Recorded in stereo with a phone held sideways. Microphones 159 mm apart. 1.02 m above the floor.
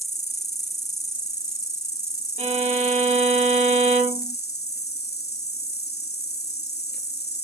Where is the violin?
45° right (ahead or behind), 2 m.